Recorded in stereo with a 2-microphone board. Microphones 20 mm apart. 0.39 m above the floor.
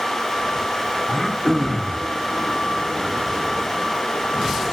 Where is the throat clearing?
25° left (ahead or behind), 1.0 m.